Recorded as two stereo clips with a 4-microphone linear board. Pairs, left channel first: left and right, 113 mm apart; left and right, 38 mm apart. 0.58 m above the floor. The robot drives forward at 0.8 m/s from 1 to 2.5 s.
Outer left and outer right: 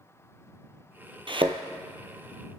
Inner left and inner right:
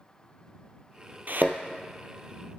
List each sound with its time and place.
1.3 s a thud: 55° right (ahead or behind), 0.9 m